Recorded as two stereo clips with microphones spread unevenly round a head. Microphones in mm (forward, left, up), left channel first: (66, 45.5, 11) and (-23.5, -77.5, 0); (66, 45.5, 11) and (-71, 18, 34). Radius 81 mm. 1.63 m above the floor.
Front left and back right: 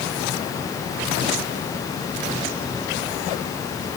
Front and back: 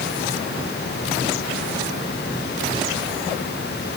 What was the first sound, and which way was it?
Only background noise.